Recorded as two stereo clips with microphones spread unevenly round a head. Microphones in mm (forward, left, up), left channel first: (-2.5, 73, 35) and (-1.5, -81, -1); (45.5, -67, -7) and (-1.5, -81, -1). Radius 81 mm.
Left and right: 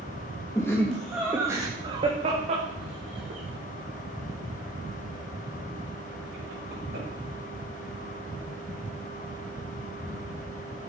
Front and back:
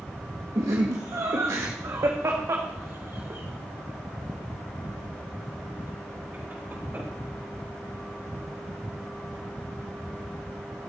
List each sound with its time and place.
0.6 s laughter: 160° left, 1.8 m; by 7.0 s 110° right, 7 m